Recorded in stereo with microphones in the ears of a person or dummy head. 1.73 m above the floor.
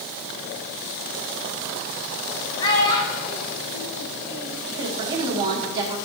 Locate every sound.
2.6 s a child speaking: 25° left (ahead or behind), 1.1 m; by 4.6 s 40° left (ahead or behind), 2.5 m
4.7 s a woman speaking: 20° right (ahead or behind), 1.1 m